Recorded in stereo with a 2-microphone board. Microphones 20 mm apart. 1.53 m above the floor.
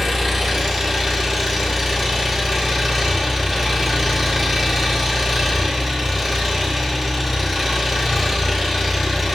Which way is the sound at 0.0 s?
5° right (ahead or behind).